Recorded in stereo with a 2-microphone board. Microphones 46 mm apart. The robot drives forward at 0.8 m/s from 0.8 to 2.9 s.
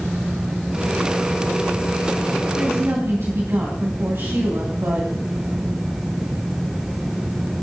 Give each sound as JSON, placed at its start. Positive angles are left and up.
{"t": 2.6, "sound": "a woman speaking", "side_deg": -70, "distance_m": 3.0}